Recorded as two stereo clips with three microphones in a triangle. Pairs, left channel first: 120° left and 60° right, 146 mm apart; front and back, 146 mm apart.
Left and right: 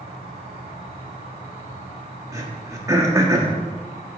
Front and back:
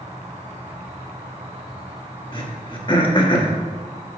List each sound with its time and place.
0.0 s an insect: 135° left, 2 m
2.3 s throat clearing: 10° right, 1.1 m